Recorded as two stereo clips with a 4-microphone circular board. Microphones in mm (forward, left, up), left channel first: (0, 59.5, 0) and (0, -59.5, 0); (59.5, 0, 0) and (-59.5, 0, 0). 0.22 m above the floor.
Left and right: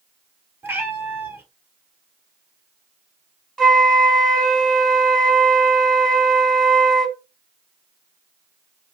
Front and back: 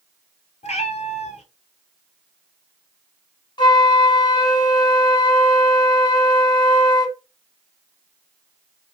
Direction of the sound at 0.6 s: 20° right.